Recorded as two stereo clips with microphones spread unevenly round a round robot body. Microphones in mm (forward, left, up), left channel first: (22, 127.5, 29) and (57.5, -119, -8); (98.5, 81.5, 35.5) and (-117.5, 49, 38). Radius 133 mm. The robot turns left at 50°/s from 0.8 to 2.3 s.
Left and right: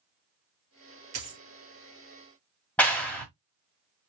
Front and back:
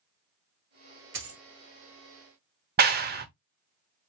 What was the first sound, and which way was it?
A dropped coin, 125° right.